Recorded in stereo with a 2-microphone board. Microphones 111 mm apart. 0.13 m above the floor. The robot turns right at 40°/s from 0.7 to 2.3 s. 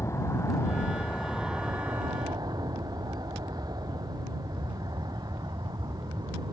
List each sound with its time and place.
0.0 s an aircraft: 155° left; by 6.5 s 140° right